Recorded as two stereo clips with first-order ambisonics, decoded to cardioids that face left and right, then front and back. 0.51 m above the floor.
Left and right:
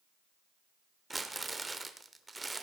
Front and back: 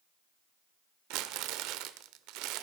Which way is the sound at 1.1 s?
170° right.